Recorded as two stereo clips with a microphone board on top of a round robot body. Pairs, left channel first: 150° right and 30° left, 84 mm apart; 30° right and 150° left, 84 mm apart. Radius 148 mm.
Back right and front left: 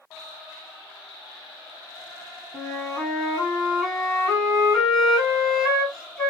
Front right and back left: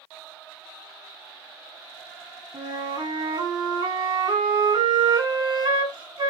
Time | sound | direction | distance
2.5 | a flute | 125° left | 2 m